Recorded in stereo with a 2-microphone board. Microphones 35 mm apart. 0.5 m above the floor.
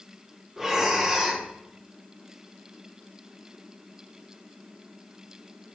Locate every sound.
0.6 s breathing: 5° right (ahead or behind), 2 m